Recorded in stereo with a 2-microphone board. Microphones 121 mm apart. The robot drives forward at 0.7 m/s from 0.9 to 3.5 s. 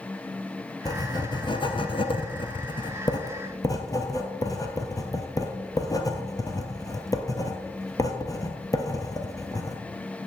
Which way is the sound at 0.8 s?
30° left (ahead or behind).